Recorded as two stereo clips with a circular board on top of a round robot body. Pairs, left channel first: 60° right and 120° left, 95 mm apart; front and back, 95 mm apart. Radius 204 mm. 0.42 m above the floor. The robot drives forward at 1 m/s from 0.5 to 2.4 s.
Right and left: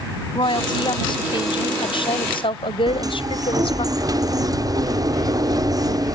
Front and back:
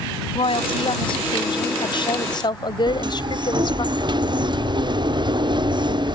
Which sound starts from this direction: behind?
A sliding door, at 2.9 s.